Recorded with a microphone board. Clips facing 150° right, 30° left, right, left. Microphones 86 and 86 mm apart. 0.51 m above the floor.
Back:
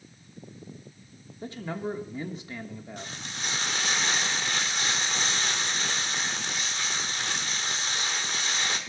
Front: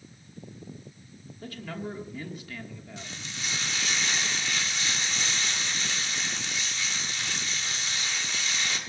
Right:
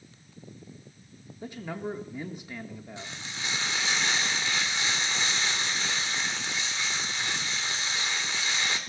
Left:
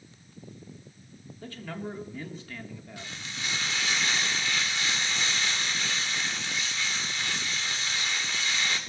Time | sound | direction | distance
1.4 | a man speaking | 135° right | 1.1 m
3.0 | frying | 145° right | 1.9 m